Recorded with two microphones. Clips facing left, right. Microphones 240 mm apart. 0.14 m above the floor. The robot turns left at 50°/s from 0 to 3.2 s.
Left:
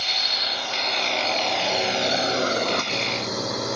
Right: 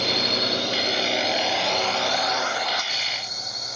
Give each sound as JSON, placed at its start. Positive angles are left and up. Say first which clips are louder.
{"t": 0.0, "sound": "a drone", "louder": "right 11 dB", "side_deg": -70}